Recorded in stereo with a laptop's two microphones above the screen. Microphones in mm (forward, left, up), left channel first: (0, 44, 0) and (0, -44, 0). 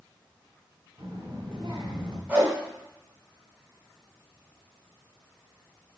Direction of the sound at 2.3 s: 25° right (ahead or behind).